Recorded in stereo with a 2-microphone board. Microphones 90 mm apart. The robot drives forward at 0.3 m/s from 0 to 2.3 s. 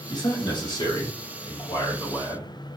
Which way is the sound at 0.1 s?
50° left (ahead or behind).